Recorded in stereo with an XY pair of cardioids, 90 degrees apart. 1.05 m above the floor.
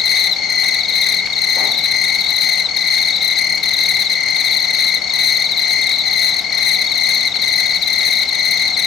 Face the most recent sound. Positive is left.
turn(degrees=65)